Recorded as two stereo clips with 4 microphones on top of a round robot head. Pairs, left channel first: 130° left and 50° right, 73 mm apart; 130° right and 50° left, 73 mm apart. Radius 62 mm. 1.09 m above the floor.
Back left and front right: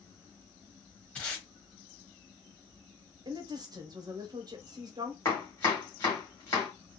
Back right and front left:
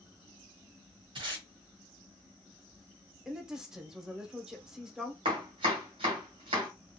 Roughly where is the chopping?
Ahead left.